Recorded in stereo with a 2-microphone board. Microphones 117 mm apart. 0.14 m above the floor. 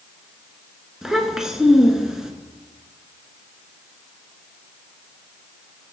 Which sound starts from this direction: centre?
A child speaking, at 1.0 s.